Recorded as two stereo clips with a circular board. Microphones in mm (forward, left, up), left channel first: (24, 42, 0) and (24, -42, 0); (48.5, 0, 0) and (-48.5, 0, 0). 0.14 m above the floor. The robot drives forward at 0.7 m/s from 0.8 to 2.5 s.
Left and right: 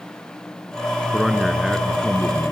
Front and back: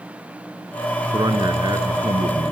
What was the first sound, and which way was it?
A man speaking, 175° right.